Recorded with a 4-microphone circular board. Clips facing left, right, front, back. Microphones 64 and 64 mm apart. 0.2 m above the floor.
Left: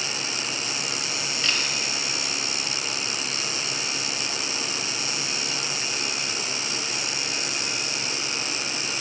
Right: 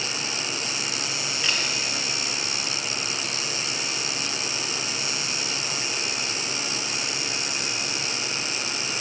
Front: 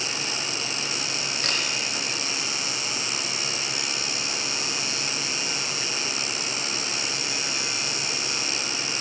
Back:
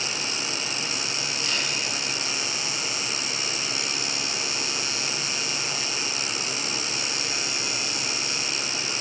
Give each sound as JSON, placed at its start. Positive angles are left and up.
{"t": 1.4, "sound": "a camera shutter", "azimuth_deg": -10, "distance_m": 2.5}